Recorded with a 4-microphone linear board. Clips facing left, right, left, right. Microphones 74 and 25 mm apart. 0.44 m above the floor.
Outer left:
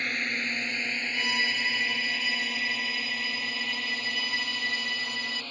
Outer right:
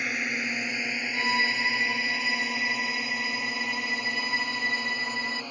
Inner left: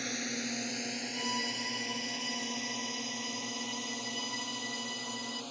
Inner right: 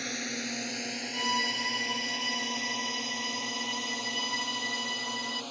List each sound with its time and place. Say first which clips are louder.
0.0 s a drone: outer right 1 dB, inner right 2 dB; 10° right (ahead or behind); by 5.5 s 15° right (ahead or behind)
1.1 s a violin: outer right 4 dB, inner right 7 dB; 30° right (ahead or behind)